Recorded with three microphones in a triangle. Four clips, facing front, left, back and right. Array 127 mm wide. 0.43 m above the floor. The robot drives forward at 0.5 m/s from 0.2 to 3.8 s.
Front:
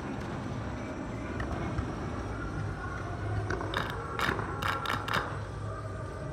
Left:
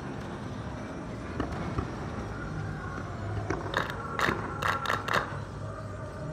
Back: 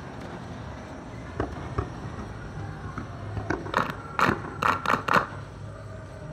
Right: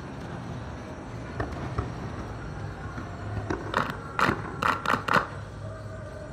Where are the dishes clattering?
170° left, 4 m; by 4.4 s 175° left, 5 m.